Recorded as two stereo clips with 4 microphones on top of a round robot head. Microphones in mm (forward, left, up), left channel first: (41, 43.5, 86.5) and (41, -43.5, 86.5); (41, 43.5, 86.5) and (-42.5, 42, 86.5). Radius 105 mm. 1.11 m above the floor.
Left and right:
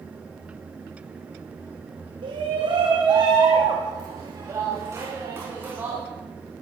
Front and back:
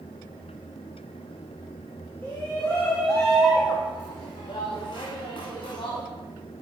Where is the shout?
70° right, 2.5 m; by 6.0 s 20° right, 3 m.